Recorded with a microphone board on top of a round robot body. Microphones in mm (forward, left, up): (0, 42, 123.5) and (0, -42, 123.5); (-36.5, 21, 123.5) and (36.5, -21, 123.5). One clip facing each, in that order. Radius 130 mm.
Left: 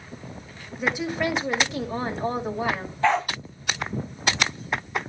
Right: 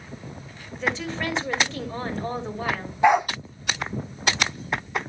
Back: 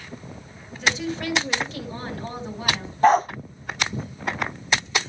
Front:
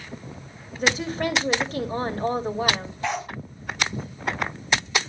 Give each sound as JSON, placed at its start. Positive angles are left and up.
{"t": 0.8, "sound": "a woman speaking", "azimuth_deg": 15, "distance_m": 2.5}
{"t": 3.0, "sound": "a dog barking", "azimuth_deg": -165, "distance_m": 0.6}